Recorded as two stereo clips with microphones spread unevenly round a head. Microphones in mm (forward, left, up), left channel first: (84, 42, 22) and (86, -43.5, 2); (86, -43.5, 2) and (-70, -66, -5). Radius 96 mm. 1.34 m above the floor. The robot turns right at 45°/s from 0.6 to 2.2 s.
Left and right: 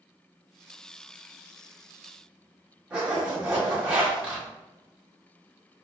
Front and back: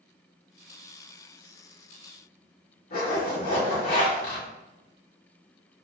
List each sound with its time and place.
2.9 s a zipper: 15° right, 1.6 m